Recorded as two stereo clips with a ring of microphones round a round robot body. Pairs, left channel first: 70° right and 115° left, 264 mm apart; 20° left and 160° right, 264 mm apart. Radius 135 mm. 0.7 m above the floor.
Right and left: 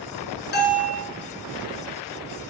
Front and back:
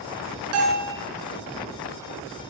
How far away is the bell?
About 2.5 m.